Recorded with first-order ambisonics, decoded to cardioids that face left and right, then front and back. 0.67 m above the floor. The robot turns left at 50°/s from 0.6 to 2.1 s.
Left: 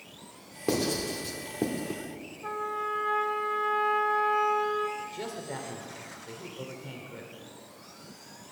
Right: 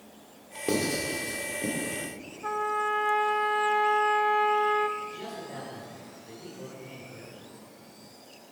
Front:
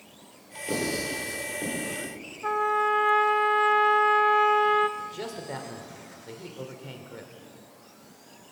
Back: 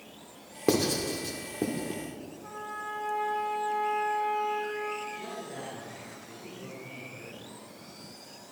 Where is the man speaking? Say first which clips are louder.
Even, front 2 dB; 25° left, 2 m.